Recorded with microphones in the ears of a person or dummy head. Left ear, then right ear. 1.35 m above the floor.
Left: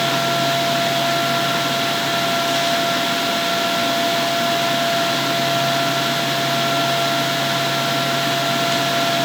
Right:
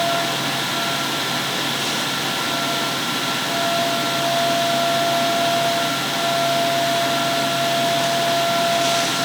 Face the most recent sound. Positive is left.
No sound to turn to.